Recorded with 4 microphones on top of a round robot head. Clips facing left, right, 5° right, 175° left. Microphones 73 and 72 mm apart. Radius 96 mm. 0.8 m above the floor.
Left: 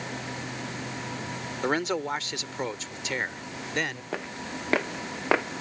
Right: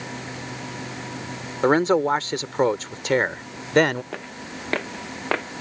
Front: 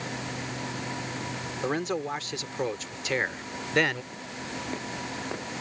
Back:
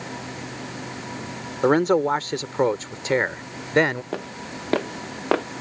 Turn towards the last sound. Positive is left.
turn(degrees=170)